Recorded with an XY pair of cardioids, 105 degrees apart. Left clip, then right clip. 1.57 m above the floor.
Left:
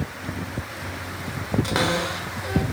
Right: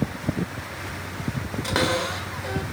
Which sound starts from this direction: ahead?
A cupboard door, at 1.6 s.